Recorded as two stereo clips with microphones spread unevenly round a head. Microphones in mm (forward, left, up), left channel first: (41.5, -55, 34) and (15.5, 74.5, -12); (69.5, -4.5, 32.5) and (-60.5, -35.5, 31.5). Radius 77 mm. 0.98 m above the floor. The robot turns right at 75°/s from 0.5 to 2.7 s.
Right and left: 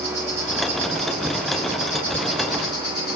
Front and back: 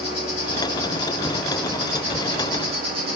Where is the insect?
25° left, 2 m; by 3.2 s 170° right, 2 m.